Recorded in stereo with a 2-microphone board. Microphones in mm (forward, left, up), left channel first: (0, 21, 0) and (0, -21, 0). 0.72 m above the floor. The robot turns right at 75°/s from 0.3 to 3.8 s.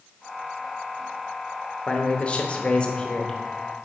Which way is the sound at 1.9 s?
20° left (ahead or behind).